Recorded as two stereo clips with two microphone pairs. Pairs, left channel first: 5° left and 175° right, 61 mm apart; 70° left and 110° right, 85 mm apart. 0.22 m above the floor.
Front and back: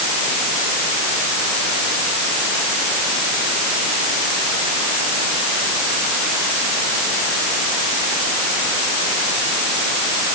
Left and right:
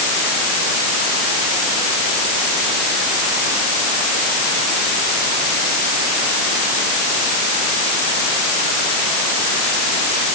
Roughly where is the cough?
I don't hear a cough.